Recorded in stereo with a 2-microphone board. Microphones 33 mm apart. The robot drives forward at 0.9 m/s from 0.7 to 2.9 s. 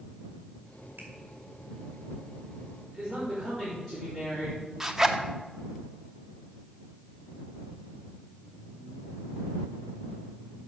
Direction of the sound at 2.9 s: 5° left (ahead or behind).